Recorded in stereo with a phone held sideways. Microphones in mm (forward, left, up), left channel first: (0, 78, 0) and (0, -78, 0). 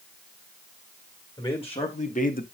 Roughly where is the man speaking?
Left.